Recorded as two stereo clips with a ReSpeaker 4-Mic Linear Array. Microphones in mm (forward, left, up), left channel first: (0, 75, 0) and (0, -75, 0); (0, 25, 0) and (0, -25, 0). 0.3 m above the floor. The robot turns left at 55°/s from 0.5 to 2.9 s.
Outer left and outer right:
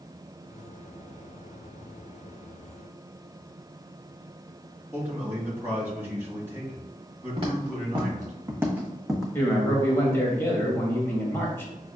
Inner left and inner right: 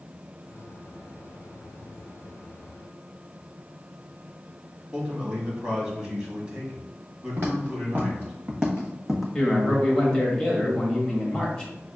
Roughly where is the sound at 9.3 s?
Centre.